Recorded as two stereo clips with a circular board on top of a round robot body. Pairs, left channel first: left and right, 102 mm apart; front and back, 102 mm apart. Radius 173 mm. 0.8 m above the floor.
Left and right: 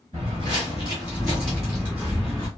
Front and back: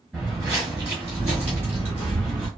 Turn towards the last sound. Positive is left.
turn(degrees=165)